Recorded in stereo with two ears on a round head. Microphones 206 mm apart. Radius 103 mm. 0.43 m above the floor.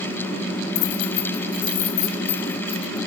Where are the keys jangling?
60° left (ahead or behind), 2 m; by 3.0 s 80° left, 4 m.